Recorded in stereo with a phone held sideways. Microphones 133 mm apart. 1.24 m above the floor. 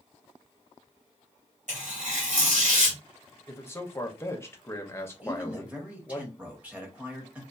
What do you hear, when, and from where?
1.7 s tearing paper: 70° right (ahead or behind), 1.8 m
3.5 s a man speaking: 20° left (ahead or behind), 0.7 m
5.2 s a man speaking: 10° right (ahead or behind), 1.1 m